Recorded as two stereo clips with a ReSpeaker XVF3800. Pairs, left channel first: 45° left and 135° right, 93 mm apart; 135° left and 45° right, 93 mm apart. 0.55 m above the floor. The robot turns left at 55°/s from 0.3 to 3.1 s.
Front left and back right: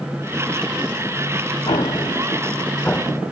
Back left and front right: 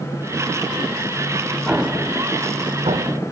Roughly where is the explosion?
Ahead left.